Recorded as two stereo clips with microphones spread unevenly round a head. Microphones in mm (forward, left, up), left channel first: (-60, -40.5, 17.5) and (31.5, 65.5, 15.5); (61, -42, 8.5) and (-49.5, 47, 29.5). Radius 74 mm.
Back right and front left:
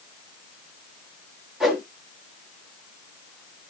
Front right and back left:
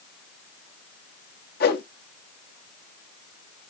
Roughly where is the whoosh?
Ahead right.